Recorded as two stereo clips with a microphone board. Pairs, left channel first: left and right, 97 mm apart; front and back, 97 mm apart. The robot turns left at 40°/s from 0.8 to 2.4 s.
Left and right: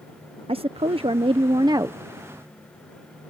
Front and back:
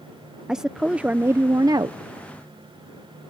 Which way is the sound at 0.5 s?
100° right.